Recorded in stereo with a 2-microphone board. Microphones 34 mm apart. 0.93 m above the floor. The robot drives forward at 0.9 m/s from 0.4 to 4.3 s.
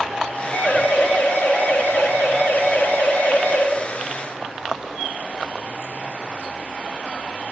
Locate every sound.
0.5 s a siren: 70° left (ahead or behind), 7 m; by 3.7 s 55° left (ahead or behind), 6.5 m